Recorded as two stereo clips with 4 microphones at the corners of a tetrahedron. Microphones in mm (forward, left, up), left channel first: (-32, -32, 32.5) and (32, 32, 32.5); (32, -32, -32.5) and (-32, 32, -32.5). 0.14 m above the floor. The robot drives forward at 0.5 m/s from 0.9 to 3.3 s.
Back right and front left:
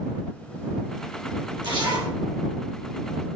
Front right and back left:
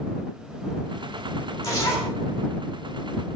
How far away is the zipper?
About 5.5 m.